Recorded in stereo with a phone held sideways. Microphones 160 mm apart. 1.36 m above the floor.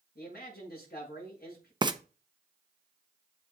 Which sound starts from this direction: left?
A man speaking, at 0.1 s.